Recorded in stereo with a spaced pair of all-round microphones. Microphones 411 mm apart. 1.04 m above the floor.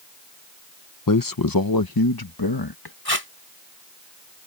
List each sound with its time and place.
1.1 s a man speaking: 50° left (ahead or behind); by 3.0 s 60° left (ahead or behind)
3.0 s tape being pulled: 65° left (ahead or behind)